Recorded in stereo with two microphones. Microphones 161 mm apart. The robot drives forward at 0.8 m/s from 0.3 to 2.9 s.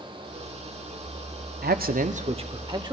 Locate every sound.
1.6 s a man speaking: 70° right (ahead or behind), 0.5 m; by 2.9 s 25° right (ahead or behind), 1.1 m